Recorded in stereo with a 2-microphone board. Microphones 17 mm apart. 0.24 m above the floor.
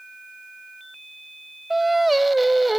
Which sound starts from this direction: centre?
Singing, at 1.7 s.